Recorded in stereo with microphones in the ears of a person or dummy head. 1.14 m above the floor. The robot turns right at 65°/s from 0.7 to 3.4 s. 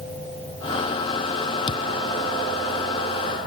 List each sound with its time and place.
1.7 s a thud: 25° left (ahead or behind); by 1.9 s 35° left (ahead or behind)